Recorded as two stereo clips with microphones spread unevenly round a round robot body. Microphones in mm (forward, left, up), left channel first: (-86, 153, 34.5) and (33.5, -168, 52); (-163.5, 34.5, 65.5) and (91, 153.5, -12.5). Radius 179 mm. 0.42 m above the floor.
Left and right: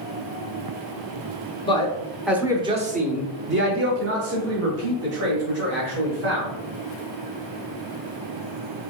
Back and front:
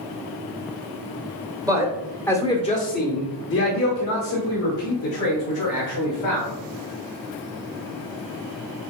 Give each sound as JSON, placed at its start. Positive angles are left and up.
{"t": 1.6, "sound": "a man speaking", "azimuth_deg": 55, "distance_m": 1.0}